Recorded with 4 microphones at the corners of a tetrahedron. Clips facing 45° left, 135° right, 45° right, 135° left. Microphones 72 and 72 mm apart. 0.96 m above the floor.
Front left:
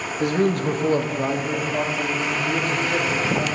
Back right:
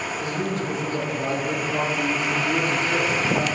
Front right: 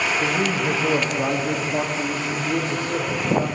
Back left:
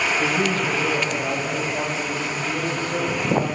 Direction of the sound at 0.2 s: 50° left.